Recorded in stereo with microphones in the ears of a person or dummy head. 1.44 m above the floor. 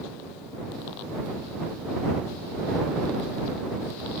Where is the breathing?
No breathing in this recording.